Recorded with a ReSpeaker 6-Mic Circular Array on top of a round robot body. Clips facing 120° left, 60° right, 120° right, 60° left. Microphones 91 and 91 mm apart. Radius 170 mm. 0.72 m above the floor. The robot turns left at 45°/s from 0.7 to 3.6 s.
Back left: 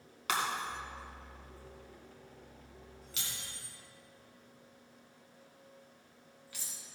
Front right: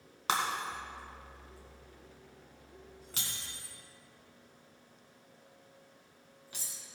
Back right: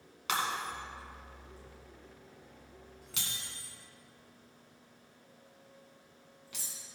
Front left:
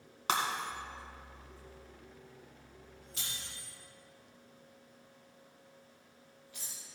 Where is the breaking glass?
Straight ahead, 1.8 m; by 6.8 s 130° right, 1.8 m.